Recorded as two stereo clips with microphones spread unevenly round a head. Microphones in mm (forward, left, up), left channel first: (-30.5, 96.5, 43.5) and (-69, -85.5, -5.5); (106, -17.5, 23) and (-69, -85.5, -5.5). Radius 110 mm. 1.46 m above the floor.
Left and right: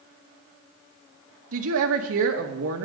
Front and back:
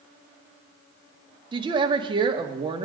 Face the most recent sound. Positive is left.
turn(degrees=-90)